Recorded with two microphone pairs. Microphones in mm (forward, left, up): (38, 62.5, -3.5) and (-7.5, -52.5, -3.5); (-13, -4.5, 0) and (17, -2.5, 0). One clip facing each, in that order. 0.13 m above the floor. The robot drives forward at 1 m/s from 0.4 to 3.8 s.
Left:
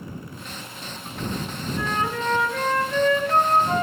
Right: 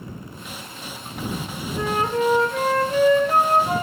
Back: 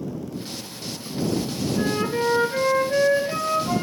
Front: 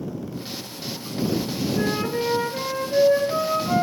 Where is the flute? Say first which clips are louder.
Right 5 dB, back 2 dB; 65° right, 0.8 m; by 3.8 s 170° right, 2 m.